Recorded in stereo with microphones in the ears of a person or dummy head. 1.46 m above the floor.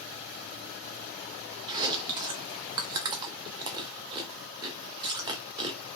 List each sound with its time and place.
1.7 s chewing: 25° right (ahead or behind), 0.5 m